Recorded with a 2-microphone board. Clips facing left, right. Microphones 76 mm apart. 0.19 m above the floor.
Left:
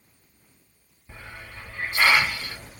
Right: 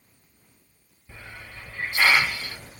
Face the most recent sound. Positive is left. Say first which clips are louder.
# left 1 dB
turn(degrees=20)  # may be behind; listen again after turning